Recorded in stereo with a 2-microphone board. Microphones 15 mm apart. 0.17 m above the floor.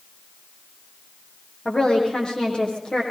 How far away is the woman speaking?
About 8 m.